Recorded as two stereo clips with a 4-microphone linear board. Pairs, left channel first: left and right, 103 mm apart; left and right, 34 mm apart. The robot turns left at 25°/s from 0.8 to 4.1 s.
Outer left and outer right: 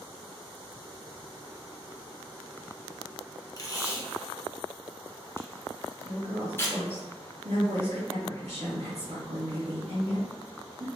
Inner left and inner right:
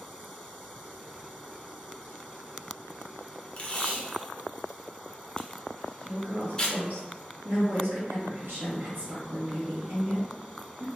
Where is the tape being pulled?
35° left (ahead or behind), 0.7 m; by 7.0 s 20° left (ahead or behind), 0.7 m.